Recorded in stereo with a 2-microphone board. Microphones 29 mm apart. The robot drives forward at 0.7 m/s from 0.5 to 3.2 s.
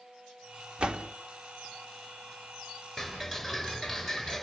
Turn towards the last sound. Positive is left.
turn(degrees=-5)  # may be behind; listen again after turning